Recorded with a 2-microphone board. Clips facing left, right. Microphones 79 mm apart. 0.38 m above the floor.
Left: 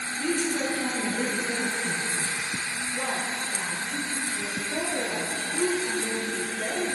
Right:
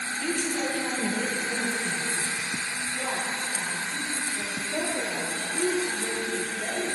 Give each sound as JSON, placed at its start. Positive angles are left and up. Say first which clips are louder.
{"t": 0.2, "sound": "a woman speaking", "louder": "left 3 dB", "side_deg": 45, "distance_m": 4.0}
{"t": 2.9, "sound": "a woman speaking", "louder": "left 1 dB", "side_deg": 60, "distance_m": 4.0}